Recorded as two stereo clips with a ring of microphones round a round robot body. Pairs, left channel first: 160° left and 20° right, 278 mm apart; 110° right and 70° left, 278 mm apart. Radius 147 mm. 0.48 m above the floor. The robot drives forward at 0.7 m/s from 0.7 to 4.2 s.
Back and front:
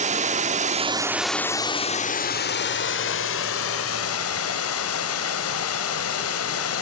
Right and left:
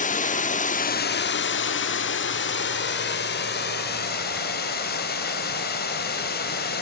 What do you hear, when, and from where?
0.0 s running water: 70° right, 0.9 m; by 6.8 s 165° right, 2.5 m